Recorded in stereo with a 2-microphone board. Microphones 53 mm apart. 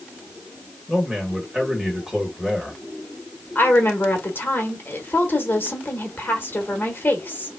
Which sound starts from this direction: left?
A woman speaking, at 3.5 s.